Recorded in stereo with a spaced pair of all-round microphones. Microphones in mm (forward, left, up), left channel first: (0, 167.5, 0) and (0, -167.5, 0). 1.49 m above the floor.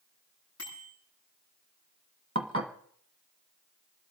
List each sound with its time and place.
0.6 s a bicycle bell: 40° left (ahead or behind), 9.5 m
2.4 s dishes clattering: 35° right (ahead or behind), 1.2 m